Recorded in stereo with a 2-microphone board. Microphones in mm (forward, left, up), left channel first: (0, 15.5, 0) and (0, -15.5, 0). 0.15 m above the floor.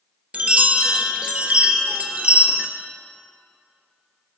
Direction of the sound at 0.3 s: 45° right (ahead or behind).